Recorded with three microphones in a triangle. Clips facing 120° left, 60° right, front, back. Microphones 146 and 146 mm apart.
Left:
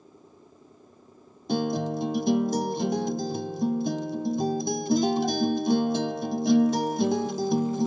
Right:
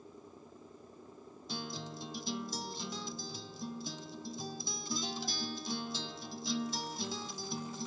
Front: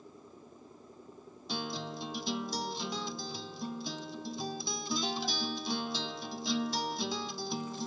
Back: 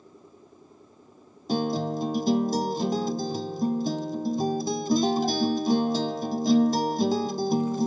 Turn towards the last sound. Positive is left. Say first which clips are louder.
# left 17 dB, back 13 dB
turn(degrees=140)